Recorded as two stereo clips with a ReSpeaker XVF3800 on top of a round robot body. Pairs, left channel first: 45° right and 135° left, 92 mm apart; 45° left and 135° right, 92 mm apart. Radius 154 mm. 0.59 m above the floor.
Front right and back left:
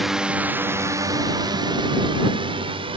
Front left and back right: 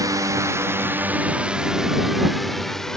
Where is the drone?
140° right; by 3.0 s 130° left.